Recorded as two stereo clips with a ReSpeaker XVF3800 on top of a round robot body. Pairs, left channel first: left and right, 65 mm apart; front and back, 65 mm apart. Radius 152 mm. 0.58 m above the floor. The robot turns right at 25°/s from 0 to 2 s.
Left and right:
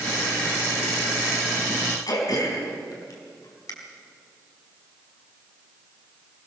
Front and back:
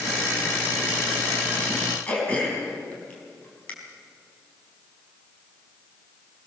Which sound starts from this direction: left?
Throat clearing, at 2.1 s.